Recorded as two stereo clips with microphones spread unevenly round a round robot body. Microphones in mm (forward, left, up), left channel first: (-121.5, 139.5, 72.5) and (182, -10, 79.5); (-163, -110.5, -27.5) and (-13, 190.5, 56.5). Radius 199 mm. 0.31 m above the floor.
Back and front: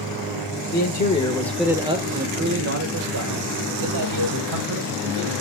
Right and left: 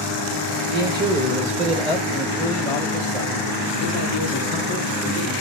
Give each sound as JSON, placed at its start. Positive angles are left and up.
{"t": 0.7, "sound": "a man speaking", "azimuth_deg": 125, "distance_m": 1.2}